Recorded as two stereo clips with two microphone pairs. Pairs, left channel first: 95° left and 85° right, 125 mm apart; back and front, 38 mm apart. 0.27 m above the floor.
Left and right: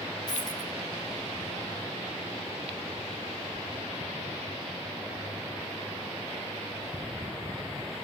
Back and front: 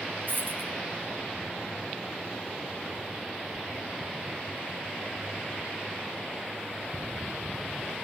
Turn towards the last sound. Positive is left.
turn(degrees=35)